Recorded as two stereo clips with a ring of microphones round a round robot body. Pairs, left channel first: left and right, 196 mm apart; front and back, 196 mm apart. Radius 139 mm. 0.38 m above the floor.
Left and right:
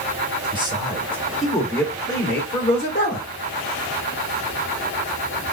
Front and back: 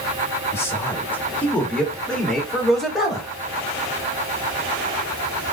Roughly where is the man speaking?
Ahead right.